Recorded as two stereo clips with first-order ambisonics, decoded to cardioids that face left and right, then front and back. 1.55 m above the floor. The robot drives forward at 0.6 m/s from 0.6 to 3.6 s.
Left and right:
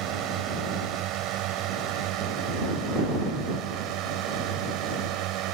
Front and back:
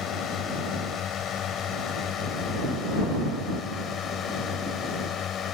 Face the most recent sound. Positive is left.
turn(degrees=-60)